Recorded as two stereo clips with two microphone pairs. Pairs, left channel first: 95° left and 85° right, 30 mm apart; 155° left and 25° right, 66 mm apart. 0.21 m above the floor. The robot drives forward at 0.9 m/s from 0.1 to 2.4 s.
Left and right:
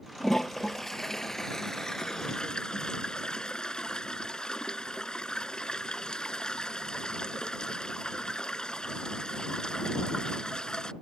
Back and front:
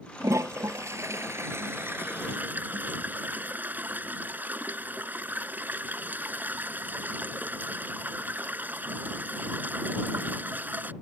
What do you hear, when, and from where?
0.2 s a toilet flushing: 15° left; by 10.9 s 35° left